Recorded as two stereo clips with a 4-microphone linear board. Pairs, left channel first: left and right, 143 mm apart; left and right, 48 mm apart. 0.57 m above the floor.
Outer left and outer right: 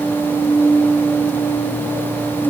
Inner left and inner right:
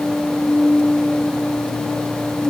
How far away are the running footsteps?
I don't hear running footsteps.